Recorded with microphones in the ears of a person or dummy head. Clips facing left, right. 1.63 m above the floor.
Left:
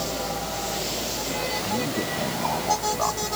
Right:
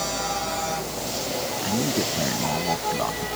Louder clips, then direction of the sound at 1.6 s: Right 4 dB; 10° right (ahead or behind).